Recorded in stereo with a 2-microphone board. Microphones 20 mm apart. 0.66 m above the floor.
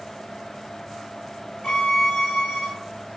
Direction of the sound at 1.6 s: 45° left (ahead or behind).